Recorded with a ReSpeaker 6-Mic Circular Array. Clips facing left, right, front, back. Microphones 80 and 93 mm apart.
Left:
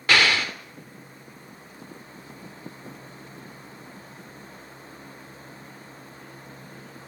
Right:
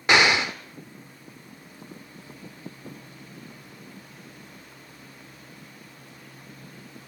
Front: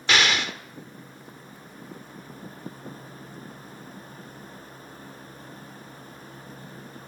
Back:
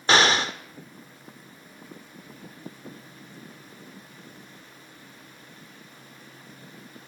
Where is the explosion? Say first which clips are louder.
Right 2 dB, back 3 dB; 150° right, 1.1 m.